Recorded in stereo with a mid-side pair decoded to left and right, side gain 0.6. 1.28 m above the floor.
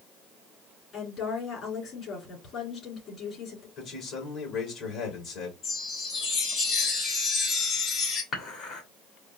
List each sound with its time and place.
0.9 s a woman speaking: 45° left, 3.5 m
3.8 s a man speaking: 55° left, 3 m
5.6 s a chime: 50° left, 2.5 m
8.3 s dishes clattering: 40° left, 2.5 m